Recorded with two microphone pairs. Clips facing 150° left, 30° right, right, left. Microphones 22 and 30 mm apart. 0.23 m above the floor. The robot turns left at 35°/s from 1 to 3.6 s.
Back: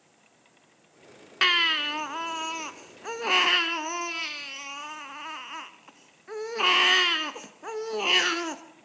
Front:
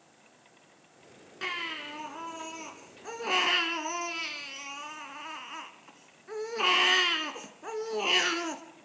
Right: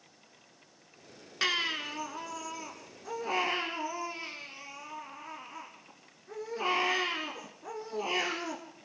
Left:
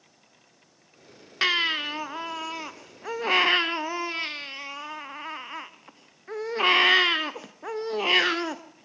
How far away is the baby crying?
About 1.5 m.